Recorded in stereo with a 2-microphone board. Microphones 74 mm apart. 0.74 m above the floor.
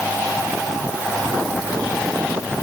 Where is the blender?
I don't hear a blender.